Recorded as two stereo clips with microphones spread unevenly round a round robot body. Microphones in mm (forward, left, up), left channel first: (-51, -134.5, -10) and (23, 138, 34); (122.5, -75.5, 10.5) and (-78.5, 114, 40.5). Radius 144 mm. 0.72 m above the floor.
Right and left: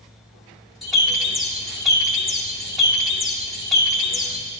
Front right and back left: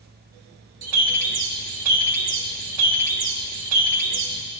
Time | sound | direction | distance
0.8 | a bird | 170° left | 1.6 m